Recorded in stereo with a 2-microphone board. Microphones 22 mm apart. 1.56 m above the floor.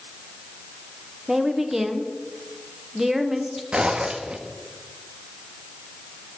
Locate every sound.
1.3 s a woman speaking: 15° right (ahead or behind), 1.2 m
3.7 s a zipper: 50° right (ahead or behind), 1.2 m